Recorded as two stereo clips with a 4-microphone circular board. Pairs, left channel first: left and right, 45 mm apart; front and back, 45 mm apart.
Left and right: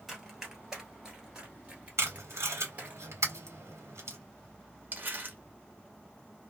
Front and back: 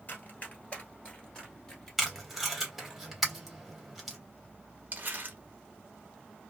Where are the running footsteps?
5° right, 1.6 m; by 3.0 s 110° right, 1.6 m.